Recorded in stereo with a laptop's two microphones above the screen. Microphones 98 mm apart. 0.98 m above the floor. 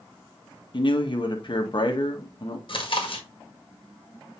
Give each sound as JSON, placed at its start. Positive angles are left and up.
{"t": 0.7, "sound": "a man speaking", "side_deg": 50, "distance_m": 1.4}
{"t": 2.7, "sound": "chewing", "side_deg": 55, "distance_m": 1.9}